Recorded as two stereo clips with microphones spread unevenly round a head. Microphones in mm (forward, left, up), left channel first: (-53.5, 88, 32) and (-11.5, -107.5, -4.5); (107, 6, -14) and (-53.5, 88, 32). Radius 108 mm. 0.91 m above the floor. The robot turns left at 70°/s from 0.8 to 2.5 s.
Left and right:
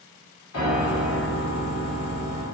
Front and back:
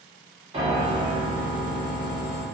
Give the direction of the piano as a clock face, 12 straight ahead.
9 o'clock.